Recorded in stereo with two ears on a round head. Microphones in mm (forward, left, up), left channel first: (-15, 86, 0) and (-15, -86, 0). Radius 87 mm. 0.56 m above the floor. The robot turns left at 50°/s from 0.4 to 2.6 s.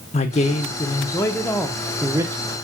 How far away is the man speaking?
About 0.7 m.